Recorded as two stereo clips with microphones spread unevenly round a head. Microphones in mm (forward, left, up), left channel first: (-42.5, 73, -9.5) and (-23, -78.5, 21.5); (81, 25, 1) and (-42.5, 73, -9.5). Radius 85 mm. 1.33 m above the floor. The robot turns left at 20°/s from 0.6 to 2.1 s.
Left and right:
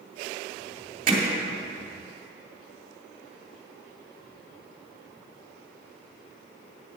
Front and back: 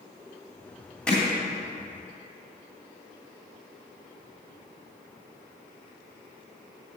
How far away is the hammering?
About 2 m.